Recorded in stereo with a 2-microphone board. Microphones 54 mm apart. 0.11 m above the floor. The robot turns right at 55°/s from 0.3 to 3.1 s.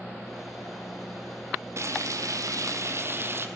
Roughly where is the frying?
Behind right.